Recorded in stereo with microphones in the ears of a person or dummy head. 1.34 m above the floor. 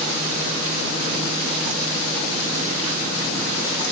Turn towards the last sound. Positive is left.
No sound to turn to.